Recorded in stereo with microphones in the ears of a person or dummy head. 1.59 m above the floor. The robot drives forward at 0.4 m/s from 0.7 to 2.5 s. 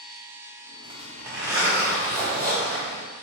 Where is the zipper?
15° right (ahead or behind), 0.8 m; by 3.0 s 10° right (ahead or behind), 1.4 m.